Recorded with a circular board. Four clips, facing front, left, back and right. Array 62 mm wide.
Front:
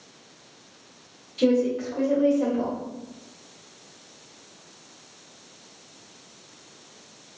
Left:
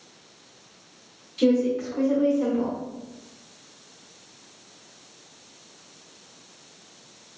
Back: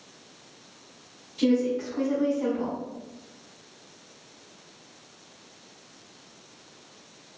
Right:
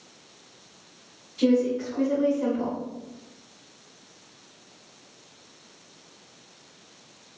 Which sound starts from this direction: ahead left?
A woman speaking, at 1.4 s.